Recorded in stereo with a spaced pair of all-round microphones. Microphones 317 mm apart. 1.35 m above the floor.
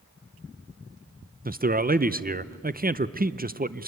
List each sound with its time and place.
1.4 s a man speaking: 30° right (ahead or behind), 0.7 m